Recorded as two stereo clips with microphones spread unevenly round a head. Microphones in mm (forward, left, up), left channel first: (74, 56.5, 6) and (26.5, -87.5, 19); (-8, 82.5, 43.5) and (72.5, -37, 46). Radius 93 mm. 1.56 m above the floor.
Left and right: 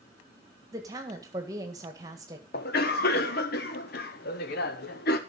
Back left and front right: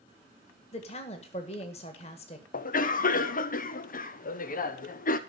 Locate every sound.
0.7 s a woman speaking: straight behind, 1.7 m
2.5 s a cough: 100° left, 1.0 m